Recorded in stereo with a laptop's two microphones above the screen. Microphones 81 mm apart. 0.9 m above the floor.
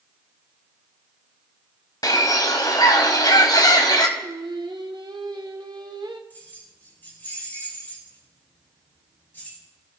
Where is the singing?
65° right (ahead or behind), 0.9 m.